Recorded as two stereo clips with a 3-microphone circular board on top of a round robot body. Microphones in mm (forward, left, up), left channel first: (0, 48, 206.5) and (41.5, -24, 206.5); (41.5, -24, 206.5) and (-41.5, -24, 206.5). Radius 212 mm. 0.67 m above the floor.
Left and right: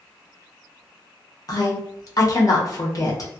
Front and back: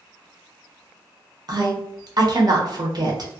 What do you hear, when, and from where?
1.5 s a woman speaking: 155° left, 1.0 m